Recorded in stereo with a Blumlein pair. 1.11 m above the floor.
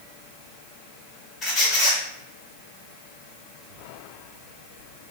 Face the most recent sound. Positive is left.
turn(degrees=25)